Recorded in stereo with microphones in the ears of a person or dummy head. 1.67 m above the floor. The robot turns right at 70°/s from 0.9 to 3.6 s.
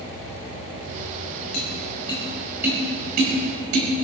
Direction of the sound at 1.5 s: 60° left (ahead or behind).